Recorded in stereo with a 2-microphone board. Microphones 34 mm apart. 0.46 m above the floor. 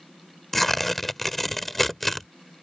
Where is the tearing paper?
5° left (ahead or behind).